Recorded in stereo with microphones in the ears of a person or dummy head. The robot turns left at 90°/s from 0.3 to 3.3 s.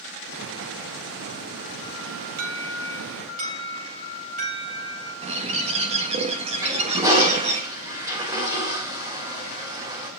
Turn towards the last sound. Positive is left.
turn(degrees=-10)  # may be behind; listen again after turning